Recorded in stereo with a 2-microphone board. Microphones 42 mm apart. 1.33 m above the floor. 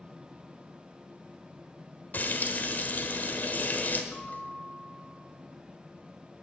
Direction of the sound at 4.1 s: 50° left (ahead or behind).